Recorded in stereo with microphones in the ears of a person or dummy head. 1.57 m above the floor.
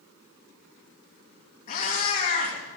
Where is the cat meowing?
45° left (ahead or behind), 3 m.